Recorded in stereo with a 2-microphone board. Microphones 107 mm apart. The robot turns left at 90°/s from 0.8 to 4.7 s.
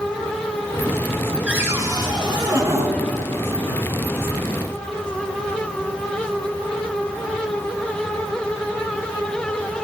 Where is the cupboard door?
20° right, 1.3 m; by 2.9 s 150° right, 1.3 m.